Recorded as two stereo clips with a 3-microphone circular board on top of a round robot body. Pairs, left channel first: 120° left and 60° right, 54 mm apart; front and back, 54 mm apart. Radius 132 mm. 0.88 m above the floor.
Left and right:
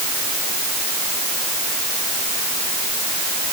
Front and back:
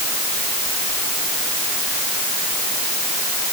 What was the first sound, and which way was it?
Only background noise.